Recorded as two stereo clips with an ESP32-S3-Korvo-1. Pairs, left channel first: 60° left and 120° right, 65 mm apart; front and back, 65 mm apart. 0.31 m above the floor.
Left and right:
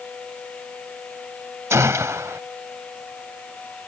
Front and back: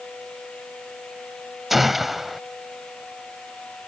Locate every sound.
1.7 s a gunshot: 95° right